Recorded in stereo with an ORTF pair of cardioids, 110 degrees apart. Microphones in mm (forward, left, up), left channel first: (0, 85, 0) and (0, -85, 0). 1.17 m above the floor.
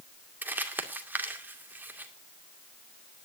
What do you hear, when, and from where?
0.4 s crumpling: 10° right, 2 m